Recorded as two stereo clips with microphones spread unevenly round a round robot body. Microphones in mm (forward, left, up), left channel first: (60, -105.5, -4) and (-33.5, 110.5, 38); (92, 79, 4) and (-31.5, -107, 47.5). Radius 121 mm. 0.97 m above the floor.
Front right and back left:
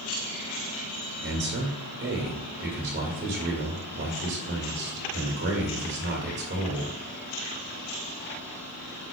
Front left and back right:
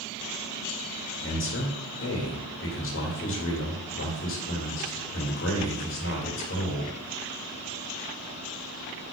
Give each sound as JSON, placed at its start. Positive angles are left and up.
{"t": 1.2, "sound": "a man speaking", "azimuth_deg": 70, "distance_m": 1.9}